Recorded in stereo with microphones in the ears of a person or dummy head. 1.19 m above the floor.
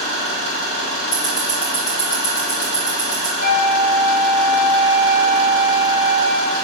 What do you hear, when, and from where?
0.0 s an engine running: 35° right (ahead or behind), 1.0 m
1.1 s ticking: 35° left (ahead or behind), 0.8 m
3.4 s a flute: 45° left (ahead or behind), 1.8 m